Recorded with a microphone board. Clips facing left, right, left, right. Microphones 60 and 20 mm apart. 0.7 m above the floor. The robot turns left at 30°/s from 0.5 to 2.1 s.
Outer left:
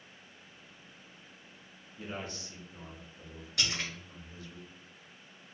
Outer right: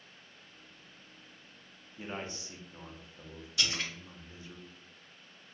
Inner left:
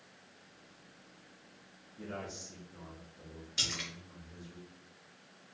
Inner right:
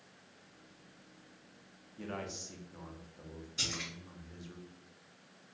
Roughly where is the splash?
Left.